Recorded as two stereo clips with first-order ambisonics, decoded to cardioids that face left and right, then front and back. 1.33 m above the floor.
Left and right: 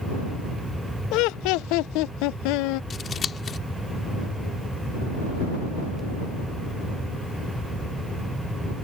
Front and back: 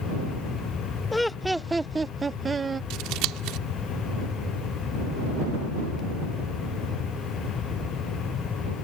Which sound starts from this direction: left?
Laughter, at 1.1 s.